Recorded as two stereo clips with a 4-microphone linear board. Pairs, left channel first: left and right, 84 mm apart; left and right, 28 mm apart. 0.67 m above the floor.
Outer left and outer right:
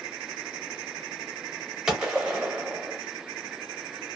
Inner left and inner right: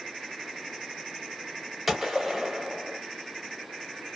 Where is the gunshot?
10° right (ahead or behind), 0.7 m.